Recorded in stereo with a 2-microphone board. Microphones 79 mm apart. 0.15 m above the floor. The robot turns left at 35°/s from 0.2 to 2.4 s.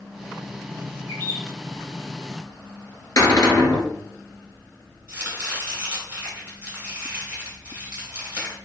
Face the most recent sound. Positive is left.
turn(degrees=-20)  # may be behind; listen again after turning